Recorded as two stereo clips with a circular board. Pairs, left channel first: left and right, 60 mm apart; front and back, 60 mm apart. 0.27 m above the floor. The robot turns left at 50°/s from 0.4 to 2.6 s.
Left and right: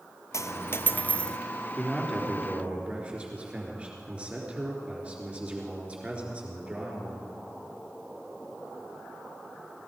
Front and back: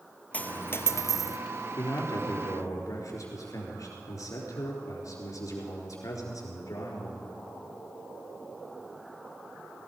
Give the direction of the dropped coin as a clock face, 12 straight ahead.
10 o'clock.